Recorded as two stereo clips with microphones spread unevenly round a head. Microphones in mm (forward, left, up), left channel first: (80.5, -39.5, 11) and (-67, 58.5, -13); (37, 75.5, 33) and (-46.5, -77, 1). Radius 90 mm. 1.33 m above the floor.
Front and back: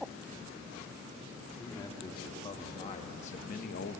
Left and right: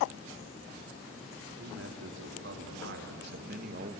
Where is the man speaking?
105° right, 3 m; by 4.0 s 65° right, 1.3 m.